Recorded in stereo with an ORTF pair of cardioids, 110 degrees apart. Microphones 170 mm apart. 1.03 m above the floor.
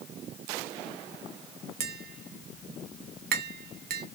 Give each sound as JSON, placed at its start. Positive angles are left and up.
{"t": 1.8, "sound": "tapping", "azimuth_deg": -65, "distance_m": 1.2}